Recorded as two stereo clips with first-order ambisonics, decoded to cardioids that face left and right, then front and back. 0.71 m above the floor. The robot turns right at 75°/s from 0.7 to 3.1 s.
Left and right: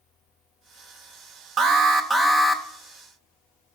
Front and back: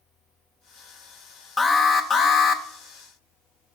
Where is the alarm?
65° right, 0.8 m; by 2.6 s 15° left, 0.8 m.